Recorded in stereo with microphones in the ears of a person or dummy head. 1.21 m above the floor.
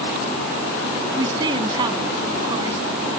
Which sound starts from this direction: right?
A woman speaking, at 1.2 s.